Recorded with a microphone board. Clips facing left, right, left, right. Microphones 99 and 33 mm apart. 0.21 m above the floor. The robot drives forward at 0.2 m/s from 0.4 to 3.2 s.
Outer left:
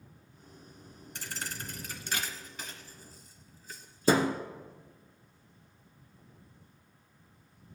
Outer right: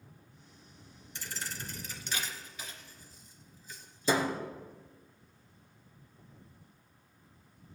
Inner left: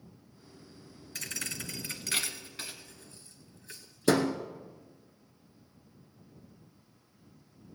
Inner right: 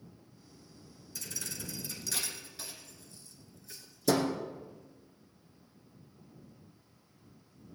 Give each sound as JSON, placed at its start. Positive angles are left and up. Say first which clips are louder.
{"t": 1.1, "sound": "a thud", "louder": "outer left 1 dB, inner left 4 dB", "side_deg": 55, "distance_m": 0.9}